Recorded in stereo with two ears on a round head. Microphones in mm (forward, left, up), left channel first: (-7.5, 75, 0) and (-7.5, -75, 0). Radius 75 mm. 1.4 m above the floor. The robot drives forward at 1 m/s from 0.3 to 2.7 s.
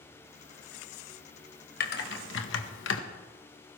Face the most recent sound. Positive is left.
turn(degrees=80)